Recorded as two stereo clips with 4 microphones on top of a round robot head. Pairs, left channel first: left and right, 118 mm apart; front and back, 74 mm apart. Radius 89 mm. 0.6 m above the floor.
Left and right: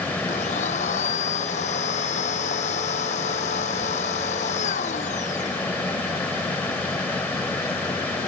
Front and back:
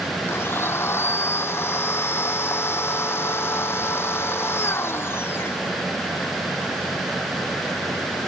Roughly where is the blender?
Ahead left.